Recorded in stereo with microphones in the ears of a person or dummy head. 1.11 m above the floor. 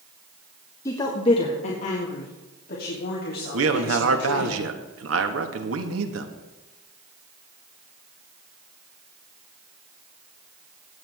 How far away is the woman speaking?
About 1.3 m.